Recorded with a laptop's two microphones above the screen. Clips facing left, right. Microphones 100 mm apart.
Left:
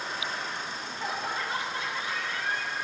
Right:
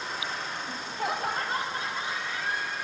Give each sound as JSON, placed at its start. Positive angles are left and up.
{"t": 0.7, "sound": "laughter", "side_deg": -70, "distance_m": 1.1}